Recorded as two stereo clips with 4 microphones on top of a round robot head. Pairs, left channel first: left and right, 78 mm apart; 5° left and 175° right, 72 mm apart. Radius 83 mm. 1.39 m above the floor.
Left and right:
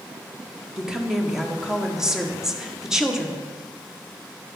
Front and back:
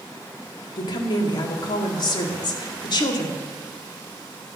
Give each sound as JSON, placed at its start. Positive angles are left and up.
{"t": 0.8, "sound": "a woman speaking", "azimuth_deg": -10, "distance_m": 1.4}